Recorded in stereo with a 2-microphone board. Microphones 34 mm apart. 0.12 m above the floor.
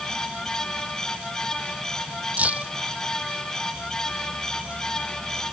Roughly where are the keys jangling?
Right.